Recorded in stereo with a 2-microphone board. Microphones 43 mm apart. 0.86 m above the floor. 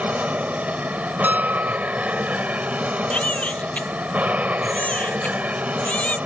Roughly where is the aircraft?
Right.